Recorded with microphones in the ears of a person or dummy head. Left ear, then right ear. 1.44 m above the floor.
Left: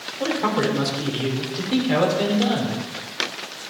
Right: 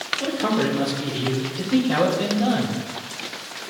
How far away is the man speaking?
About 6 m.